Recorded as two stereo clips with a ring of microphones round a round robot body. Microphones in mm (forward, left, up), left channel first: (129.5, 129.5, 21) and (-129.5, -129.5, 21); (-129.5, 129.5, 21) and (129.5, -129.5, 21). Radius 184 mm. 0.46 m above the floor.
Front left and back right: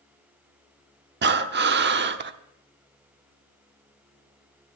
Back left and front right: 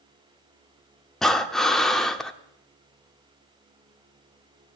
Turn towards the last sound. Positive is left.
turn(degrees=-140)